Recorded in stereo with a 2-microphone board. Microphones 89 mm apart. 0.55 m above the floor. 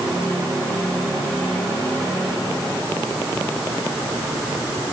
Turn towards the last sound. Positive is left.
No sound to turn to.